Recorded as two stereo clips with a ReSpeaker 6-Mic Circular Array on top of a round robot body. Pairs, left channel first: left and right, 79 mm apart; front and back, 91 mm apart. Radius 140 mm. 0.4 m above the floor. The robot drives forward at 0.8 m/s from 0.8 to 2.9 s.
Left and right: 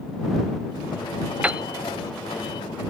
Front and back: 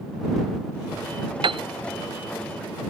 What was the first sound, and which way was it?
A piano, 165° right.